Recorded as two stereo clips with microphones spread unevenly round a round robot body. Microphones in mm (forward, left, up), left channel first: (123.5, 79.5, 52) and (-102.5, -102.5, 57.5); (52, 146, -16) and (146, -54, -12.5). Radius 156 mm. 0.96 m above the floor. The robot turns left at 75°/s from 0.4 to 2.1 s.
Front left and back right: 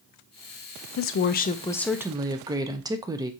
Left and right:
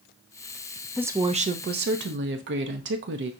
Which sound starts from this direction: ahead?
A woman speaking, at 1.0 s.